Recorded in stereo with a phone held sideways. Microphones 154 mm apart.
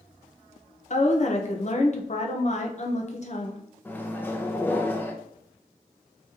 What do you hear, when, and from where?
0.9 s a woman speaking: 50° left (ahead or behind), 0.7 m
3.9 s a microwave: 15° left (ahead or behind), 0.5 m